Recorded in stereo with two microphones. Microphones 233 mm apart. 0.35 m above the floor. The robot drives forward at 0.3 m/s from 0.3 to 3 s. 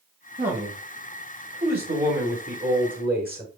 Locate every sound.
0.4 s a man speaking: 35° right (ahead or behind), 1.7 m; by 3.5 s 40° right (ahead or behind), 1.6 m